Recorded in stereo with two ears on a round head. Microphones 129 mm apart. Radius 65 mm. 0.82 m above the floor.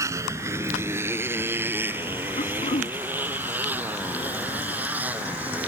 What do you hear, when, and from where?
0.0 s a motorcycle: 20° right (ahead or behind); by 5.7 s 10° right (ahead or behind)
2.4 s throat clearing: 45° left (ahead or behind)